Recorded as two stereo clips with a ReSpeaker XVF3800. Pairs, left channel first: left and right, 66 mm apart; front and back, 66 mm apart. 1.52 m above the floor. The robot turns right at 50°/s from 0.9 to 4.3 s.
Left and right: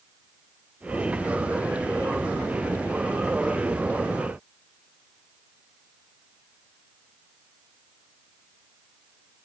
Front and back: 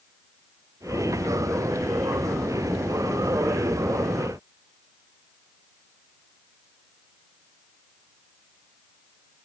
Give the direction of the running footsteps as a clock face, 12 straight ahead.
No running footsteps in this recording.